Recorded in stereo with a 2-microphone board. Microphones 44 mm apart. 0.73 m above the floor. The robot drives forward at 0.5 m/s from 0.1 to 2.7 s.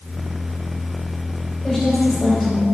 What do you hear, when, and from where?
1.6 s a woman speaking: 10° left (ahead or behind), 4 m